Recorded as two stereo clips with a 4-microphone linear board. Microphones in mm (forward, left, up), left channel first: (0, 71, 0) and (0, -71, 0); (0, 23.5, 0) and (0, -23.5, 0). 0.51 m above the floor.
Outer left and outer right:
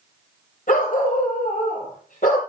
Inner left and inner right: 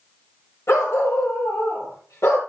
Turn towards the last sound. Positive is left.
turn(degrees=70)  # may be behind; listen again after turning